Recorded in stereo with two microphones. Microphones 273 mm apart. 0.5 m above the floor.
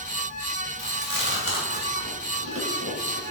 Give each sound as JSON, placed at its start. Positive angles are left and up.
{"t": 0.8, "sound": "chewing", "side_deg": 55, "distance_m": 2.0}